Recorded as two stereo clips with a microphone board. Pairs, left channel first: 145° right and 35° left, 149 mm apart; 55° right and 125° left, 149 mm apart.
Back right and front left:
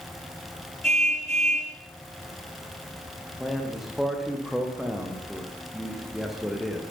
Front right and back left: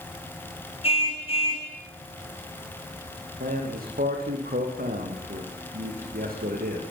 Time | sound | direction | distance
0.8 | a car horn | 5° right | 5.5 m
3.4 | a man speaking | 120° left | 8 m